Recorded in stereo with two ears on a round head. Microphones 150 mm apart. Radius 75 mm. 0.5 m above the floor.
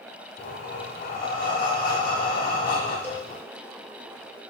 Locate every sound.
0.4 s breathing: 50° left (ahead or behind), 0.7 m
3.0 s a cowbell: 10° right (ahead or behind), 1.2 m